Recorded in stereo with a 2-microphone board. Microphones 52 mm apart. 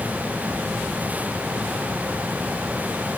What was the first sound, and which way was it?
Only background noise.